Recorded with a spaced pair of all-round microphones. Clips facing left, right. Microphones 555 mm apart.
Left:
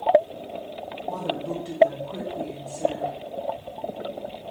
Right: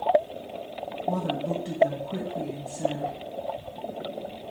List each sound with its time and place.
1.1 s a woman speaking: 40° right (ahead or behind), 0.8 m